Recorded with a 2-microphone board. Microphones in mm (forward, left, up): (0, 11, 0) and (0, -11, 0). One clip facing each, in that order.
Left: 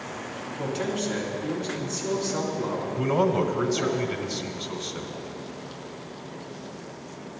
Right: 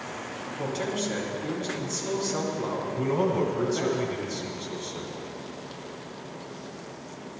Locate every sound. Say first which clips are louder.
0.6 s a man speaking: left 1 dB; 5° right (ahead or behind), 3.5 m
3.0 s a man speaking: left 3 dB; 30° left (ahead or behind), 1.2 m